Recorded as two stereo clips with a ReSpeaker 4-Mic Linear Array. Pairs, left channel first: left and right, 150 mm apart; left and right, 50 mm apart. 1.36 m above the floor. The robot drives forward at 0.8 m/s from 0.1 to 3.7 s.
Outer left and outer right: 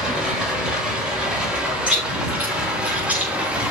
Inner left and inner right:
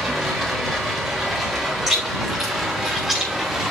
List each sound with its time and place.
0.0 s running water: 5° right (ahead or behind), 6 m; by 3.7 s 10° right (ahead or behind), 3 m
1.9 s chewing: 10° right (ahead or behind), 6 m